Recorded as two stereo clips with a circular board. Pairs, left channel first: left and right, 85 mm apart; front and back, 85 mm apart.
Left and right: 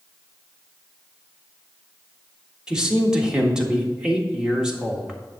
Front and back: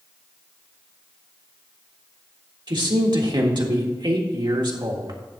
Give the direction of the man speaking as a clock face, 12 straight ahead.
6 o'clock.